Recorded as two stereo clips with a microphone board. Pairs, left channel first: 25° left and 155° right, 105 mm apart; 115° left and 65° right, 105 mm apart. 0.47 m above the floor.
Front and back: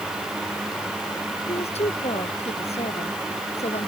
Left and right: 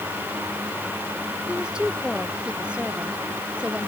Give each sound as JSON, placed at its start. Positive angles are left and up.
{"t": 1.5, "sound": "a woman speaking", "azimuth_deg": 15}